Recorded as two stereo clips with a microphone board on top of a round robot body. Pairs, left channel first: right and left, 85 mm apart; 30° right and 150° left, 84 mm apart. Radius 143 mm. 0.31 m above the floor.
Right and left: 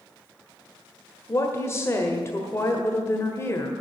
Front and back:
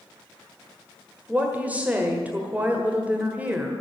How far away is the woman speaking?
About 1.7 m.